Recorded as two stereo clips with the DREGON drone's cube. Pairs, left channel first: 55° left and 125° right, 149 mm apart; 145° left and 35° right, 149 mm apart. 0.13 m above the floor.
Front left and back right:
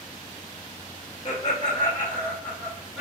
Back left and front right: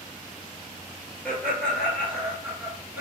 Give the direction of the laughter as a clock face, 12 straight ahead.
10 o'clock.